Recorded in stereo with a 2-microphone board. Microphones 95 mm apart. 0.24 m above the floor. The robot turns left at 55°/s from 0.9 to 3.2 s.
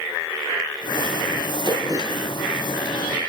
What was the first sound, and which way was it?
Throat clearing, 125° right.